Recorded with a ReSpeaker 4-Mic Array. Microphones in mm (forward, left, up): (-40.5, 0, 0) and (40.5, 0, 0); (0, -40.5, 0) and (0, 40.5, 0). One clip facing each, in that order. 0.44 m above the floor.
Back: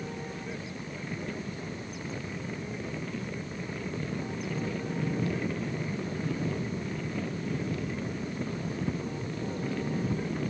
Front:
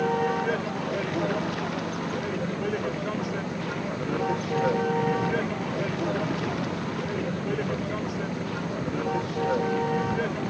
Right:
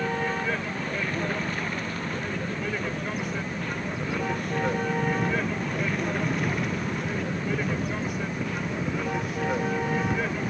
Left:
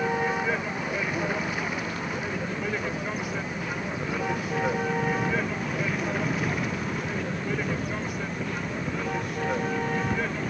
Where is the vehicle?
10° left; by 10.5 s straight ahead.